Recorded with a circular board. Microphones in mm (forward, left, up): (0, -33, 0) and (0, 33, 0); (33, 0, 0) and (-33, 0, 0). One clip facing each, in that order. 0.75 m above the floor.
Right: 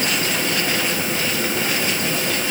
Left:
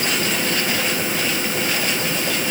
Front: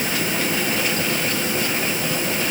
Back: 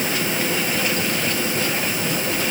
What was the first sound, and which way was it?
Only background noise.